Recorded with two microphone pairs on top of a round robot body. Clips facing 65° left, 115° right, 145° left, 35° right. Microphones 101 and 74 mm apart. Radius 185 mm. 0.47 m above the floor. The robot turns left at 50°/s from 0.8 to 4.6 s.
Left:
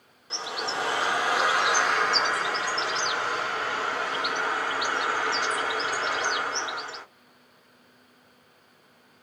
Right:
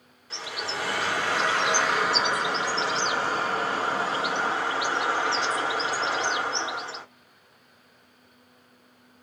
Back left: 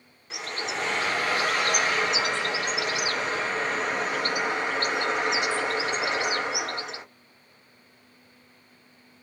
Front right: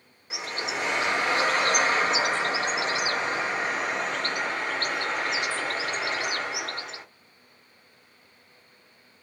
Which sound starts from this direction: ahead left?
A bird, at 0.3 s.